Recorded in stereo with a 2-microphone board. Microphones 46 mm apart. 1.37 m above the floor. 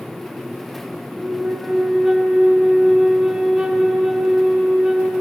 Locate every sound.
1.2 s a flute: 15° right (ahead or behind), 1.1 m